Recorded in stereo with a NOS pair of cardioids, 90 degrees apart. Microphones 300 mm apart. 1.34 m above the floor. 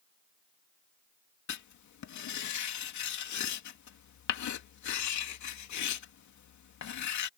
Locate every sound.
1.5 s writing: 65° left